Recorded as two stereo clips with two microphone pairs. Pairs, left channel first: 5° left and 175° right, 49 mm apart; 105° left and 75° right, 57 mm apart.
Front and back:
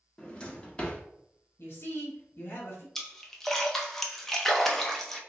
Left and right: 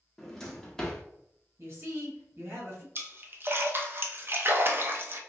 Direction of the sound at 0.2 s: 35° left.